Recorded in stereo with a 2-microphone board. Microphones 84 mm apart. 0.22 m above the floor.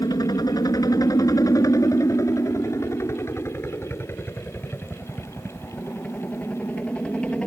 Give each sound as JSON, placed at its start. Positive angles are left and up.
{"t": 0.0, "sound": "a helicopter", "side_deg": 50}